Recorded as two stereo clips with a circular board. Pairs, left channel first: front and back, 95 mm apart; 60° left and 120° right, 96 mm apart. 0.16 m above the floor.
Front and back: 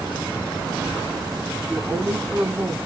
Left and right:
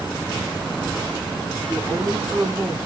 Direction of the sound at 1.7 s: 165° left.